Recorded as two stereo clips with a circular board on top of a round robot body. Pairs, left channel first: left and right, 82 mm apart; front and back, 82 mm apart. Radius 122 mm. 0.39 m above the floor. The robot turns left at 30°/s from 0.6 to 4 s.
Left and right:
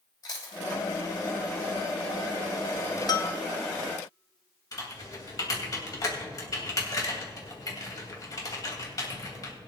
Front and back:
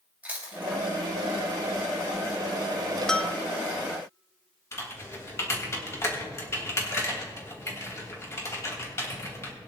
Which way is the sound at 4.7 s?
55° left.